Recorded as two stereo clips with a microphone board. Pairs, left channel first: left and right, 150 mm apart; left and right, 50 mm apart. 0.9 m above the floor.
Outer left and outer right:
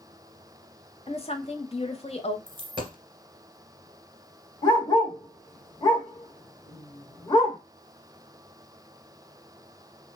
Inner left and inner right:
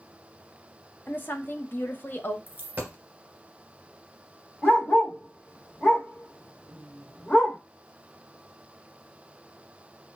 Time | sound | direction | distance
1.1 | a woman speaking | 40° left (ahead or behind) | 0.7 m
2.5 | a dropped coin | 35° right (ahead or behind) | 1.7 m
4.6 | a dog barking | 25° left (ahead or behind) | 1.3 m